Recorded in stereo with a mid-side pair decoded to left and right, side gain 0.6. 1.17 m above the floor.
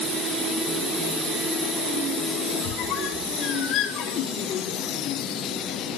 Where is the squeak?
65° left, 1.5 m.